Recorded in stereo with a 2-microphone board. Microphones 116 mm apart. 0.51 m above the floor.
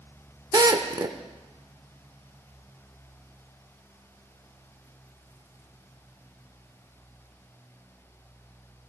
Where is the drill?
35° right (ahead or behind), 0.8 m.